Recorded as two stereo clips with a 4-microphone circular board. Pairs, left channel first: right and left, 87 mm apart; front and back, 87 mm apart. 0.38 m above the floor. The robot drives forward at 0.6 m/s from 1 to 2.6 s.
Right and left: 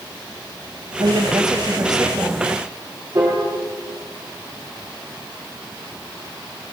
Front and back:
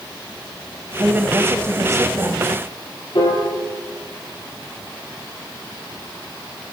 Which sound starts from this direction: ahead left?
A piano, at 3.1 s.